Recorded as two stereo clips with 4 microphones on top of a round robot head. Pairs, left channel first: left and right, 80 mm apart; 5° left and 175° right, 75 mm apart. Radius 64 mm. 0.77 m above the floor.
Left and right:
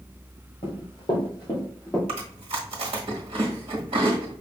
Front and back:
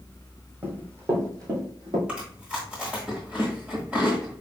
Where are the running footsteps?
120° left, 1.8 m; by 2.0 s 165° left, 1.9 m.